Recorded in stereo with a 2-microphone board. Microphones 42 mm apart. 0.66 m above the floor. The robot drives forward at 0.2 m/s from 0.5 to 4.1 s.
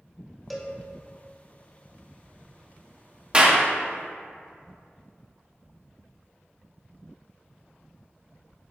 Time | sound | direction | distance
0.5 | a cowbell | centre (ahead or behind) | 0.7 m
3.3 | a clap | 20° right (ahead or behind) | 0.9 m